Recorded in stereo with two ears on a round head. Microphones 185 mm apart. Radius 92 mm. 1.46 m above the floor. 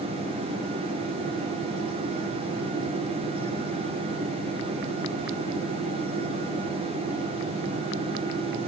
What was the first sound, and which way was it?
Only background noise.